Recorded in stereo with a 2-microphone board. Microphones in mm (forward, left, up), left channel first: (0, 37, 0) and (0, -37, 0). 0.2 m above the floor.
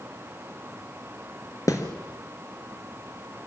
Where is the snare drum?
45° left (ahead or behind), 3.5 m.